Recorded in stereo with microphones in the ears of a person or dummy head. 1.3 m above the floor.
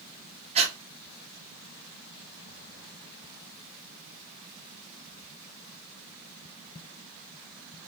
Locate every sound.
0.6 s breathing: 35° right (ahead or behind), 0.8 m